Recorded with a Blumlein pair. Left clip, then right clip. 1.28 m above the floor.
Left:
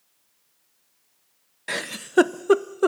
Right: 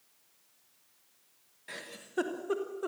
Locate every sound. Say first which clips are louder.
1.7 s a giggle: left 15 dB; 35° left, 0.6 m